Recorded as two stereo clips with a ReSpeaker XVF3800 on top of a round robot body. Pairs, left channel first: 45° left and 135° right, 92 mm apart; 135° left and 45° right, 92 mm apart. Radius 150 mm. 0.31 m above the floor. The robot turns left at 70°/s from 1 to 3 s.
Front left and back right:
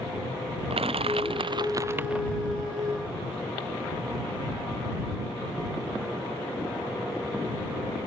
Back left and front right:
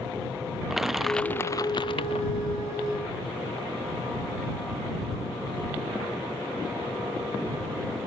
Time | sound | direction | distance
0.7 | crushing | 135° right | ?